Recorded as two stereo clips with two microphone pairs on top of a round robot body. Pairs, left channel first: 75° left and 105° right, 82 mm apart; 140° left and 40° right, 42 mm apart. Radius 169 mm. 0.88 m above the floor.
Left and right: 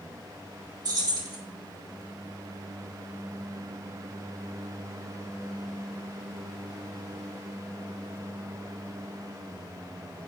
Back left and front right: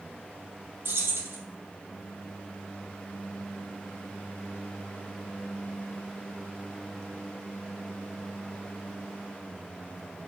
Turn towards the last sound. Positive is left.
turn(degrees=-70)